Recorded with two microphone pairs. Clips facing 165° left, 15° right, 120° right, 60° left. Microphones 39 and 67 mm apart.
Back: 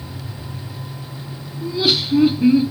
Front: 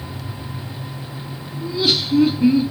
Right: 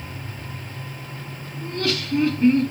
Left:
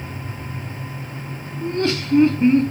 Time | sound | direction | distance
1.6 | laughter | 90° left | 0.8 m